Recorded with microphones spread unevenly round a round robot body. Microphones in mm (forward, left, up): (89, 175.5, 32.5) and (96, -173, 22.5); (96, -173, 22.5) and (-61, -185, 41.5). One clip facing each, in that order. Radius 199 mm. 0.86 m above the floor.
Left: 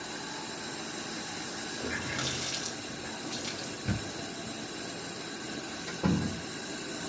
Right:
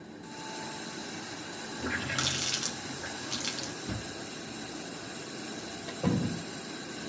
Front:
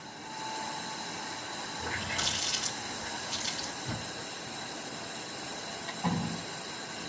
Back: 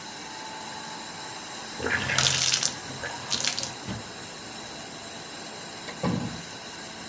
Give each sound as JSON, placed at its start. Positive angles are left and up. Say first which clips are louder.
{"t": 1.8, "sound": "a running tap", "louder": "right 1 dB, back 9 dB", "azimuth_deg": -155, "distance_m": 0.8}
{"t": 3.9, "sound": "a thud", "louder": "left 3 dB, back 1 dB", "azimuth_deg": 135, "distance_m": 3.0}
{"t": 5.9, "sound": "a door slam", "louder": "even, back 4 dB", "azimuth_deg": 160, "distance_m": 3.0}